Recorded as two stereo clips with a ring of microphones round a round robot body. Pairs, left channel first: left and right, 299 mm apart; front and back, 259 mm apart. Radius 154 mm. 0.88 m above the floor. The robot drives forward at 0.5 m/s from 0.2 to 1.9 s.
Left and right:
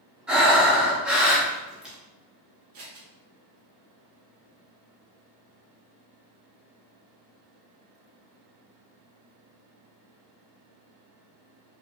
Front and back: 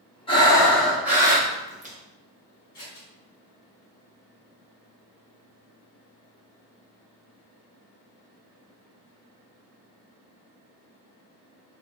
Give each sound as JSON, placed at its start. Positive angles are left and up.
{"t": 0.3, "sound": "breathing", "azimuth_deg": -10, "distance_m": 1.0}
{"t": 2.7, "sound": "scissors", "azimuth_deg": -80, "distance_m": 1.3}